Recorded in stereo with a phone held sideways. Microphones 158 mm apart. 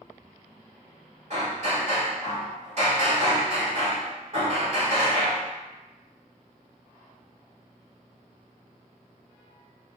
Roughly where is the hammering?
Right.